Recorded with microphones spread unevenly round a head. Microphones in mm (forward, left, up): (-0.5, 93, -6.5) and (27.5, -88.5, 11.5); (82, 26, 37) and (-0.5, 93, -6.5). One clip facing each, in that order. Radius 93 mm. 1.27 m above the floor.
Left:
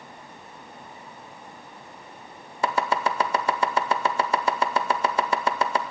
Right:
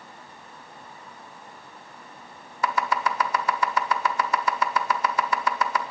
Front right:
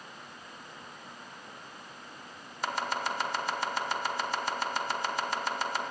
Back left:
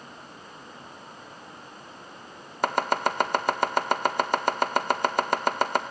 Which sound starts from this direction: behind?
Chopping, at 2.6 s.